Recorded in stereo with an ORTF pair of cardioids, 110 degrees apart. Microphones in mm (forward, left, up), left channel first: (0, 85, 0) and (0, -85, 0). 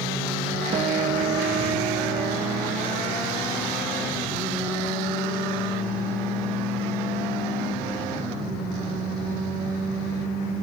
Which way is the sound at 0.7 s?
40° right.